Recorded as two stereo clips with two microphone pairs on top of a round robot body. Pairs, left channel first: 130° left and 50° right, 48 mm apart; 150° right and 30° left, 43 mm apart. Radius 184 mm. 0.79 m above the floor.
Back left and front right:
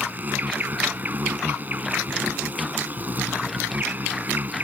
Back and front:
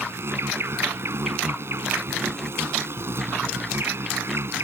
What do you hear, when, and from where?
0.0 s an insect: 5° left